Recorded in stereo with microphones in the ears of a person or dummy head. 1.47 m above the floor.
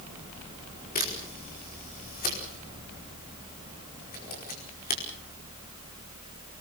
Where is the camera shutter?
40° left (ahead or behind), 5 m.